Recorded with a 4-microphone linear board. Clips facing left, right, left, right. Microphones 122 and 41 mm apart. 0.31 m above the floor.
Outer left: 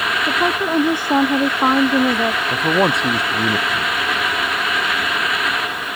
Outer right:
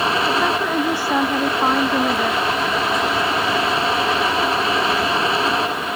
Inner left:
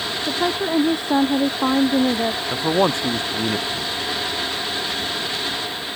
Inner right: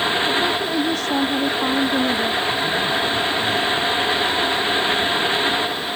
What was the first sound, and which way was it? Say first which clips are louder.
A woman speaking: even, inner right 1 dB; 15° left (ahead or behind).